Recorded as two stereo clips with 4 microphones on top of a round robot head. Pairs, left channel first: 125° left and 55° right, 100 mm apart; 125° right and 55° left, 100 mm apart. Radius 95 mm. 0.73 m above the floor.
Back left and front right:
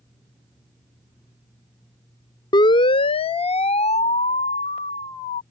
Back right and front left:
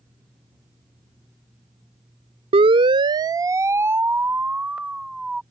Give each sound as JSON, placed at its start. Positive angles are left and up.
{"t": 2.5, "sound": "a siren", "azimuth_deg": 80}